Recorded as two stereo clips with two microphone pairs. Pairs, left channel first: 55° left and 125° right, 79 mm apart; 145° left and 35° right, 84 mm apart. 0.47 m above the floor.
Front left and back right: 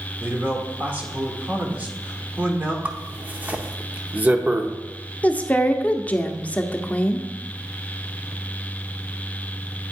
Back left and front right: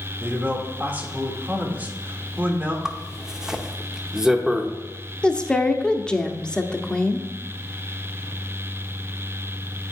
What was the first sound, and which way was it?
A man speaking, 80° right.